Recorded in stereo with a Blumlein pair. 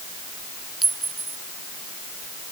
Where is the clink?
10° right.